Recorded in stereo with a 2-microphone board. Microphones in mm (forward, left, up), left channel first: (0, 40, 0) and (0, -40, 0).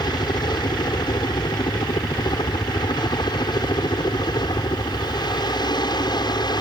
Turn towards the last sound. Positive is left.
turn(degrees=60)  # may be behind; listen again after turning